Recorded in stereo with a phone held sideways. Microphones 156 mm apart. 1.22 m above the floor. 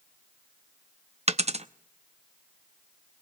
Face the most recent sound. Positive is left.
turn(degrees=-45)  # may be behind; listen again after turning